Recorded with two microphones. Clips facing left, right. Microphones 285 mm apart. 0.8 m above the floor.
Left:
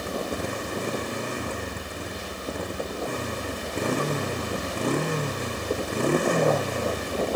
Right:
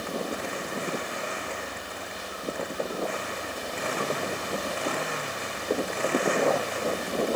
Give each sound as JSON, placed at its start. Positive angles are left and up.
{"t": 0.0, "sound": "a motorcycle", "side_deg": 45}